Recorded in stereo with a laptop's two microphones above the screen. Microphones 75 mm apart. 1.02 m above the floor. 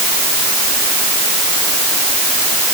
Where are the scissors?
I don't hear scissors.